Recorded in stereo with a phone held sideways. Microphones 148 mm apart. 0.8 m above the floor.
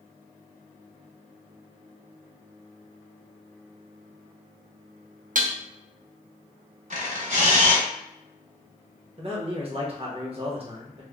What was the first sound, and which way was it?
Dishes clattering, 60° right (ahead or behind).